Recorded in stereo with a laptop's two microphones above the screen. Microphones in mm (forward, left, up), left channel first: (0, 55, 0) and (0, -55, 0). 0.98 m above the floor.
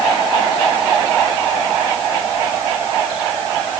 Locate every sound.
Only background noise.